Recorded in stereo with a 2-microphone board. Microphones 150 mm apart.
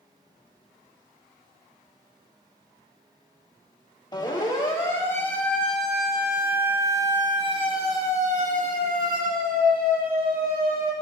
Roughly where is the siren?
Left.